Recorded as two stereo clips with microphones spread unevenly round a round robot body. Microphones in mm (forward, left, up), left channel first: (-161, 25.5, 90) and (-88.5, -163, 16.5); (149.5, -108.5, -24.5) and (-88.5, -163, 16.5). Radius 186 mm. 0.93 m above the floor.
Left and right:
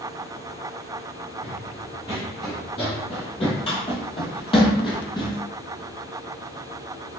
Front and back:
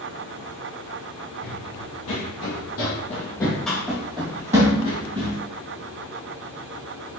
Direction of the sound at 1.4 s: 45° left.